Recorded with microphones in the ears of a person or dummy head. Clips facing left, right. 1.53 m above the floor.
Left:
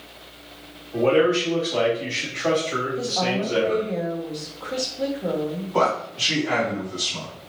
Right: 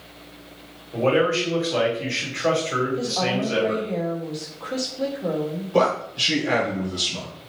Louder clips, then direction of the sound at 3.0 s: Even; centre (ahead or behind).